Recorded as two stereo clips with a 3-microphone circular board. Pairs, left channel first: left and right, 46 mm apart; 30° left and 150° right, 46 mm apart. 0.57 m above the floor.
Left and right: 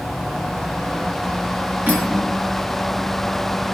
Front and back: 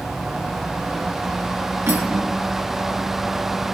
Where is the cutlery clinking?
140° right, 6 m.